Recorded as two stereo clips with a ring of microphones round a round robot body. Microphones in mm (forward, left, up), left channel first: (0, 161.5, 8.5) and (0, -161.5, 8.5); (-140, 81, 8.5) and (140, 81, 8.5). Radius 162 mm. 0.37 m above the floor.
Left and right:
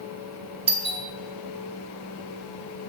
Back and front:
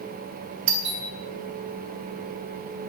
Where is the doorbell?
20° right, 2.5 m.